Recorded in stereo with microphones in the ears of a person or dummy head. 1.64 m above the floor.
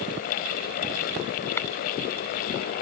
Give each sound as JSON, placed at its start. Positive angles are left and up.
{"t": 1.6, "sound": "tapping", "side_deg": 10}